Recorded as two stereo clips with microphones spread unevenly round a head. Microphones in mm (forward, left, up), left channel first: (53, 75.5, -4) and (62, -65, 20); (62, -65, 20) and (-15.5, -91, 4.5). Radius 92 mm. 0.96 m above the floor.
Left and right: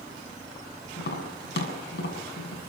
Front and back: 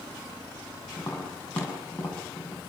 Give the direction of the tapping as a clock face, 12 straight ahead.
9 o'clock.